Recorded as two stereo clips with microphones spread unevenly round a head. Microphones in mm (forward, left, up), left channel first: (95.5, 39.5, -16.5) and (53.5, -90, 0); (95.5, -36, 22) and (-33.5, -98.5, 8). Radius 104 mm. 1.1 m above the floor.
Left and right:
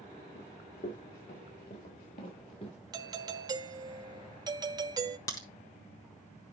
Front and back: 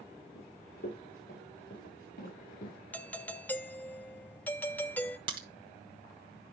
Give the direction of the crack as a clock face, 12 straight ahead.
7 o'clock.